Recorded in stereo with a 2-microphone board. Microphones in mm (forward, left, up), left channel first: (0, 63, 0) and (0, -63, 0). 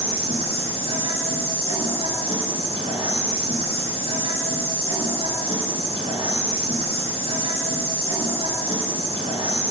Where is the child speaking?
No child speaking in this recording.